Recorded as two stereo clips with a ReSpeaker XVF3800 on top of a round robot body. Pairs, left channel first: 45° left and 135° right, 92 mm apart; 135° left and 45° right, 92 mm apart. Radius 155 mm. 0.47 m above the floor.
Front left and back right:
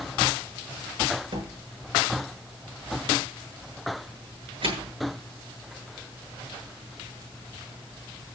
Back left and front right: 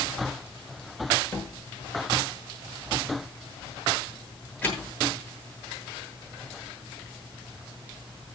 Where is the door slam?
150° right, 8 m.